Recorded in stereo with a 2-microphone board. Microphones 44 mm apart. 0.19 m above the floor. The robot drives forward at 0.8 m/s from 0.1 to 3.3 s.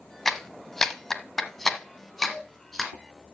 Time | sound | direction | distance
0.2 | a clap | 5° left (ahead or behind) | 1.0 m